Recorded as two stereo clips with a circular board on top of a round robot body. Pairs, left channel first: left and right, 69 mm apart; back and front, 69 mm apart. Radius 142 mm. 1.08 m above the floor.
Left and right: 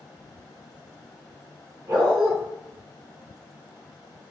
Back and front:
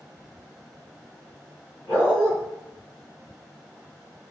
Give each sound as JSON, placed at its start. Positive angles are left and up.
{"t": 1.9, "sound": "a dog barking", "azimuth_deg": -110, "distance_m": 2.5}